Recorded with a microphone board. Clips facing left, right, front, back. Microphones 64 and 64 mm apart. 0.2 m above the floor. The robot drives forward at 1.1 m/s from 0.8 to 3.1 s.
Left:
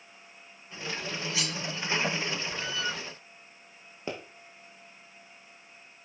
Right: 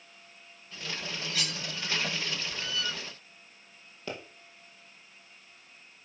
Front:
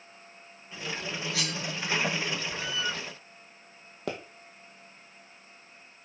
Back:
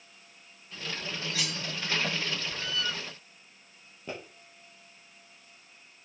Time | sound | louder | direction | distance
1.3 | cutlery clinking | right 1 dB, front 1 dB | 5° left | 3 m
4.1 | a pop | left 2 dB, front 5 dB | 20° left | 2.5 m